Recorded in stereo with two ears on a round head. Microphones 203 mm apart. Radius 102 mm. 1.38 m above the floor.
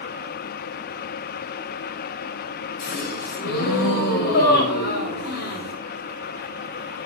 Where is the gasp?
45° left (ahead or behind), 5 m.